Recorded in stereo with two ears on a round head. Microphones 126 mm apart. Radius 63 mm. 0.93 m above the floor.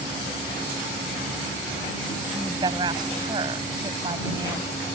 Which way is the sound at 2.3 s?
35° right (ahead or behind).